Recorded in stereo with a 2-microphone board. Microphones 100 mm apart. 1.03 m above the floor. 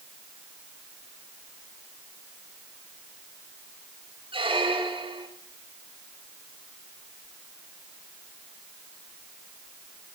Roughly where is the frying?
I don't hear frying.